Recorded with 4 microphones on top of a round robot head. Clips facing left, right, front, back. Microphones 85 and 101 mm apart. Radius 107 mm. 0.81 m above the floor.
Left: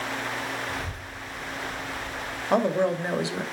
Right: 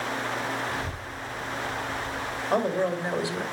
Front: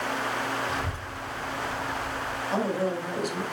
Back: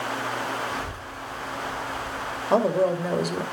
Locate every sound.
0.7 s a child speaking: 15° left, 6.5 m; by 2.4 s straight ahead, 5 m
2.5 s a woman speaking: 155° left, 2.5 m